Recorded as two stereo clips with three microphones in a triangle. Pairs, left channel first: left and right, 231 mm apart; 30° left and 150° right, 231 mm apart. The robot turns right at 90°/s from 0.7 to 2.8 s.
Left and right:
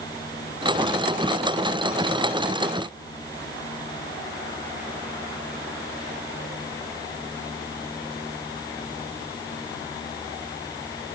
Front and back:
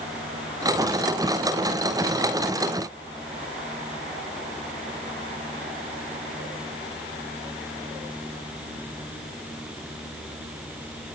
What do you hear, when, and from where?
Only background noise.